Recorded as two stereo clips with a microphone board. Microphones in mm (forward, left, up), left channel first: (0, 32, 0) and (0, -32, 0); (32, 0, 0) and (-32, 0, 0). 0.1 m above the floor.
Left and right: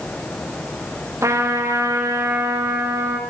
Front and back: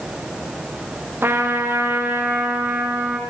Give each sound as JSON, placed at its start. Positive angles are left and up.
{"t": 1.2, "sound": "a trumpet", "azimuth_deg": -125, "distance_m": 3.0}